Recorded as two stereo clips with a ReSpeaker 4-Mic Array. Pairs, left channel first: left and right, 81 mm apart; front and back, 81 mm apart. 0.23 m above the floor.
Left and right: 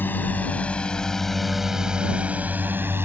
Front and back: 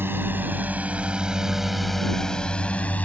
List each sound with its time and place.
0.0 s a drone: 140° left; by 3.0 s 55° right